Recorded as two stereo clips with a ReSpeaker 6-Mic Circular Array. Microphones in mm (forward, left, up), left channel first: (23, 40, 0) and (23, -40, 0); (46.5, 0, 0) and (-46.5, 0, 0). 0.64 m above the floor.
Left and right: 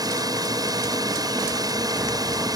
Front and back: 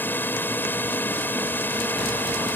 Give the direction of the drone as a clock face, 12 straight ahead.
2 o'clock.